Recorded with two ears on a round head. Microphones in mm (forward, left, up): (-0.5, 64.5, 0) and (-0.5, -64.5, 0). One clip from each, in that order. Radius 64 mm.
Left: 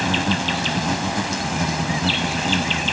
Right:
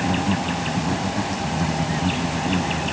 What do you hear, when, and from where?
0.0 s an insect: 65° left (ahead or behind)